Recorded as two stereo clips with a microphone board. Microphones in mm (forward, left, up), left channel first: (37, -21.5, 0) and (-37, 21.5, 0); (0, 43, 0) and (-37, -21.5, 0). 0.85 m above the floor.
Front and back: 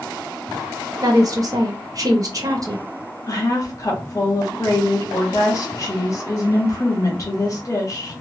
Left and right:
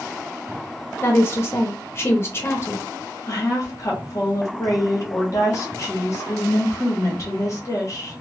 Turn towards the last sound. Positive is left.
turn(degrees=20)